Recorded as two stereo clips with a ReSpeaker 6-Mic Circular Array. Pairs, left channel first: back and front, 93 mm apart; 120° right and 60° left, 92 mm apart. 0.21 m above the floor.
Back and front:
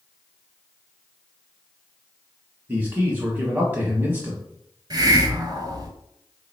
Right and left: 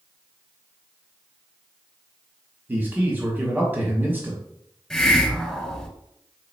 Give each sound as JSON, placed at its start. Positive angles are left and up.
{"t": 2.7, "sound": "a man speaking", "azimuth_deg": 30, "distance_m": 1.1}
{"t": 4.9, "sound": "a hiss", "azimuth_deg": -35, "distance_m": 0.8}